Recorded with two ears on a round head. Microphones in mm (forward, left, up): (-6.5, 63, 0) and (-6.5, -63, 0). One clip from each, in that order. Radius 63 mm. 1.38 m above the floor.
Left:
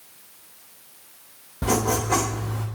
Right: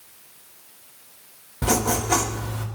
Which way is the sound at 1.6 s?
65° right (ahead or behind).